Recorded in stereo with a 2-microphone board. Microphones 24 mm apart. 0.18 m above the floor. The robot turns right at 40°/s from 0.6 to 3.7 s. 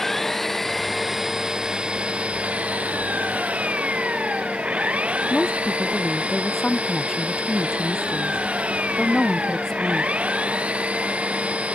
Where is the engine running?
165° left; by 11.8 s 75° right.